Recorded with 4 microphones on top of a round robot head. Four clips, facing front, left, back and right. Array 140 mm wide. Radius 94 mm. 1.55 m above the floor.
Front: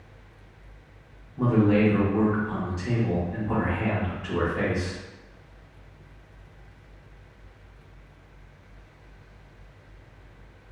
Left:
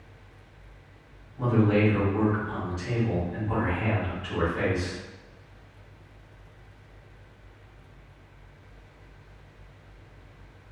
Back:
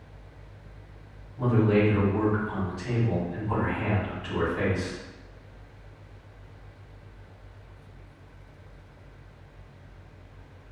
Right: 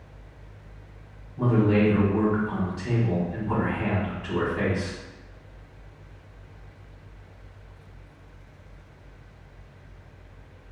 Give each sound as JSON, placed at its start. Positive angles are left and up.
{"t": 1.4, "sound": "a man speaking", "azimuth_deg": -35, "distance_m": 1.3}